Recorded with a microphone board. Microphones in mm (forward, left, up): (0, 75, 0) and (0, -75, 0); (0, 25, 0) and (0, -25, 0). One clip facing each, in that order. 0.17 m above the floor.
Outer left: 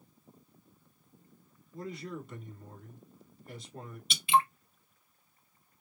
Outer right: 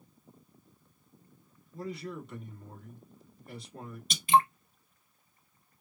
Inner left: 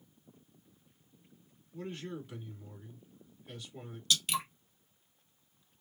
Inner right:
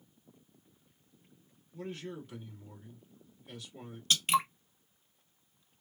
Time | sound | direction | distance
1.7 | a man speaking | 5° left (ahead or behind) | 1.2 m
4.1 | dripping | 40° right (ahead or behind) | 0.8 m